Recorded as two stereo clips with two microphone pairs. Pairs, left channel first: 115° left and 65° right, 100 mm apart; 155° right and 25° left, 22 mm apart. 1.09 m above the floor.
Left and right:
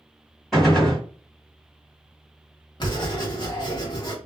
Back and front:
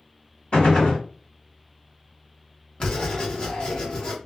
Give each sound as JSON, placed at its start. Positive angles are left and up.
{"t": 0.5, "sound": "a gunshot", "azimuth_deg": -160, "distance_m": 1.5}
{"t": 2.8, "sound": "writing", "azimuth_deg": 160, "distance_m": 0.9}